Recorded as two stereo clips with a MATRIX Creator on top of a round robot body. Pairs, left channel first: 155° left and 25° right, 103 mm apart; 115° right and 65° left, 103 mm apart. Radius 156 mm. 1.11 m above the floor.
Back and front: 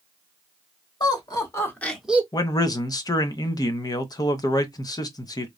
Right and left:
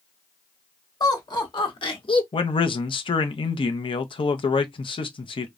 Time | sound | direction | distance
1.0 | laughter | 160° right | 2 m
2.3 | a man speaking | 150° right | 0.6 m